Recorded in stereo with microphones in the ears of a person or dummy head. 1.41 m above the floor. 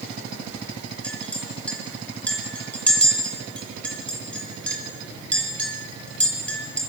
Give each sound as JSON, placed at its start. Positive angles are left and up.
{"t": 1.0, "sound": "a clink", "side_deg": 5, "distance_m": 5.0}